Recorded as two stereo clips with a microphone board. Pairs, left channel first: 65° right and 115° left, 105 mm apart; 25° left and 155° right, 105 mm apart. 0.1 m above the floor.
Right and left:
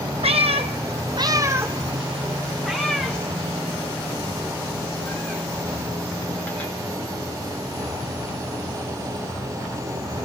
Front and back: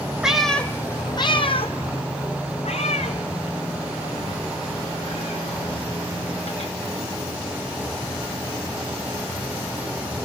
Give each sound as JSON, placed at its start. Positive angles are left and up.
{"t": 0.2, "sound": "a cat meowing", "azimuth_deg": 120, "distance_m": 0.7}